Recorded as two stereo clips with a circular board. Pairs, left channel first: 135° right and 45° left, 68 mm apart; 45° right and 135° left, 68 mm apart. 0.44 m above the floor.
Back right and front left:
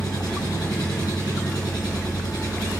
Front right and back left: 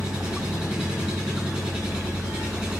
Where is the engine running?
150° right, 3 m.